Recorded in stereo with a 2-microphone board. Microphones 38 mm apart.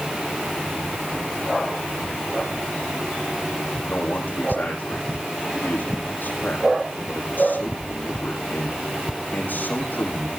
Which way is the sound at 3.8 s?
70° left (ahead or behind).